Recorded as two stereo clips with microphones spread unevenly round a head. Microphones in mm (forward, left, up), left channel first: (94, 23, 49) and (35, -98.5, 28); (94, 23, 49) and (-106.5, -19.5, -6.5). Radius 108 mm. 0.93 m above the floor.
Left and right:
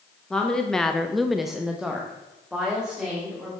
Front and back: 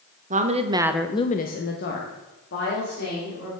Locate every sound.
0.3 s a woman speaking: 155° left, 1.4 m; by 3.5 s 30° right, 4 m